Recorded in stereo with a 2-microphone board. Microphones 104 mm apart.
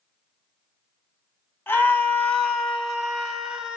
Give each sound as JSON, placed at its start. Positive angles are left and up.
{"t": 1.7, "sound": "a scream", "side_deg": 20, "distance_m": 1.3}